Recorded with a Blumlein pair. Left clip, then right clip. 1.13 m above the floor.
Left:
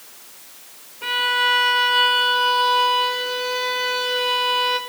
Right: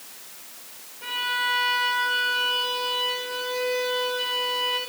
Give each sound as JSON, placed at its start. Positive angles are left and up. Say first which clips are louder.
{"t": 1.0, "sound": "a violin", "louder": "left 7 dB", "azimuth_deg": 25, "distance_m": 4.0}